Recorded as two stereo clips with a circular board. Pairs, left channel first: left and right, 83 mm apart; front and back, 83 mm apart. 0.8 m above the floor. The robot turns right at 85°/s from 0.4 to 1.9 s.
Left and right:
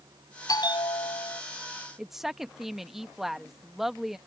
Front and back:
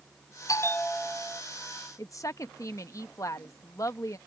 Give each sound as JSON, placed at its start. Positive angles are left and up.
{"t": 0.5, "sound": "a bell", "azimuth_deg": 45}
{"t": 2.0, "sound": "a woman speaking", "azimuth_deg": -5}